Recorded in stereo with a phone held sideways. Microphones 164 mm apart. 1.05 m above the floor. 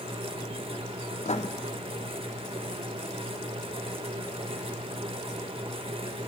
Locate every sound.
0.0 s a fan: 35° right (ahead or behind), 1.1 m
1.2 s writing: 45° left (ahead or behind), 0.6 m